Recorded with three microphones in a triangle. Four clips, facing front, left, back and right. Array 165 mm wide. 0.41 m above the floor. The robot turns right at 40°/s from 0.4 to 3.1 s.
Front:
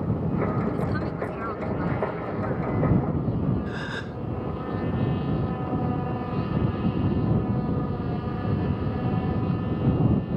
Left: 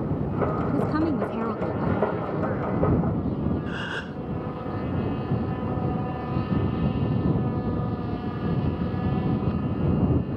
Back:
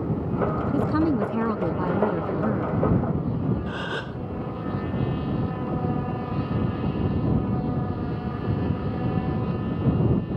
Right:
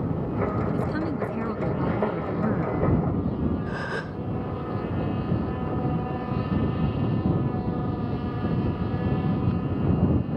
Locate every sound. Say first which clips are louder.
0.7 s a woman speaking: left 3 dB, back 6 dB; 140° left; by 2.8 s 135° right
3.7 s a gasp: right 1 dB, back 2 dB; 135° right